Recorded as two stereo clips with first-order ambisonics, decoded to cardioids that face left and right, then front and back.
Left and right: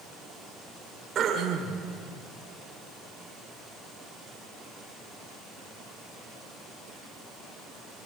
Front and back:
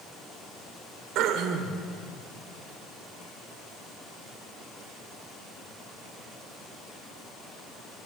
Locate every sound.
1.1 s throat clearing: 150° right, 3 m